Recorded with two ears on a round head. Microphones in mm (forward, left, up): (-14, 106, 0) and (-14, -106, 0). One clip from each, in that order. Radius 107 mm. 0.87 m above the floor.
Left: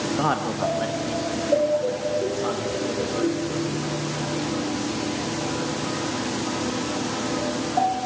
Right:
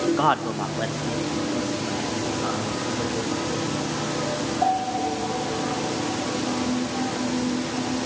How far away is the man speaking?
About 1.3 m.